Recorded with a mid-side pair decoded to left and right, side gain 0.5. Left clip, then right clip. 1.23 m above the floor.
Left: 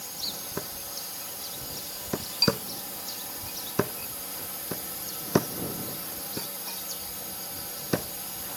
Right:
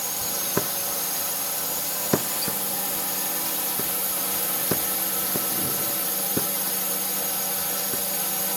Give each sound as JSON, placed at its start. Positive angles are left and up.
{"t": 0.0, "sound": "a drone", "azimuth_deg": -65}